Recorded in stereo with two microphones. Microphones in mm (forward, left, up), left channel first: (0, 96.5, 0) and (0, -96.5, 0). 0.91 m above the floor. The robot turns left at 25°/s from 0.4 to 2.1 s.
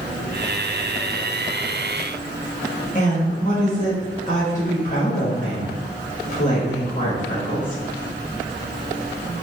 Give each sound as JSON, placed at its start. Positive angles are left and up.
{"t": 3.0, "sound": "a woman speaking", "side_deg": 40, "distance_m": 1.2}